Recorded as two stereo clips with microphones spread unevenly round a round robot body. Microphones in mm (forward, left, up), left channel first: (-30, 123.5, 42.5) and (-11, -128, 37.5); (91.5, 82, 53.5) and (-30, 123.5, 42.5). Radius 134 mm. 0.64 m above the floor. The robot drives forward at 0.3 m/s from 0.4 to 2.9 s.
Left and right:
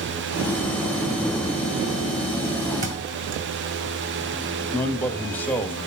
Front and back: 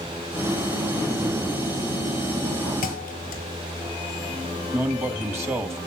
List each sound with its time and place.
2.8 s a thud: 25° right, 1.5 m
4.7 s a man speaking: 170° left, 1.2 m